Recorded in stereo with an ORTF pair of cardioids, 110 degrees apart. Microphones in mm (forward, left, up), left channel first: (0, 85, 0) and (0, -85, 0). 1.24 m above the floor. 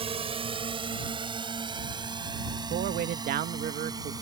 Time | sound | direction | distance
0.0 | a drone | 35° right | ?
2.7 | a man speaking | 65° right | ?